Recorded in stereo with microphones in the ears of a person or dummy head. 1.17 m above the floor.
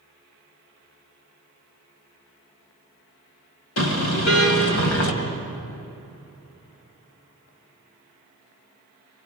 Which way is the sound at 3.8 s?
80° left.